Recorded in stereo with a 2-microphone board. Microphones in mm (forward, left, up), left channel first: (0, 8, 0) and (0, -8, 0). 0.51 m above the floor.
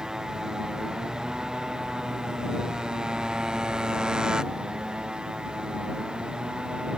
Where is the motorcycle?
40° right (ahead or behind); by 7.0 s 60° right (ahead or behind).